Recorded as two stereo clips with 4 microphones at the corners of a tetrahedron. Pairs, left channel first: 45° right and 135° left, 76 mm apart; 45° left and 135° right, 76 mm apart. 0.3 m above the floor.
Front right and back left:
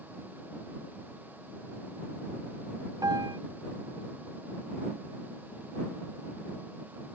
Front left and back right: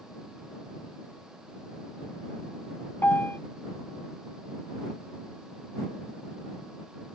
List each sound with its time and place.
3.0 s a piano: 105° left